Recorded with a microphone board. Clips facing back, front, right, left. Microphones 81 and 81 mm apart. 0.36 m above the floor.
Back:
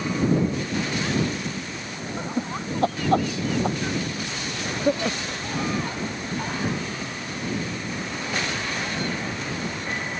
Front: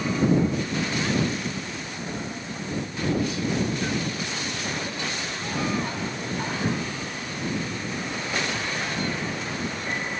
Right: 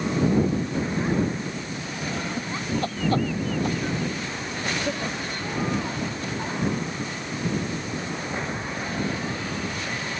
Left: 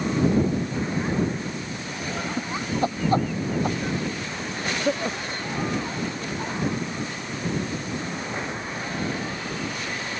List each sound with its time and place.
2.2 s laughter: 165° left; by 5.5 s 155° left